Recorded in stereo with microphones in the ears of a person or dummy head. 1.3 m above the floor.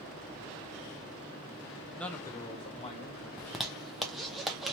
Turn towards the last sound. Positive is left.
turn(degrees=0)  # may be behind; listen again after turning